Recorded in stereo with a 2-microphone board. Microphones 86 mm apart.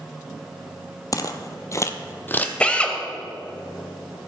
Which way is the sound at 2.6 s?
15° left (ahead or behind).